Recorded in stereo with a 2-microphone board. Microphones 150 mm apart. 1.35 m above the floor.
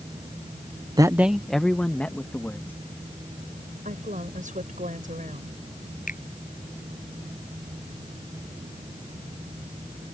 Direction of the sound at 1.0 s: 30° right (ahead or behind).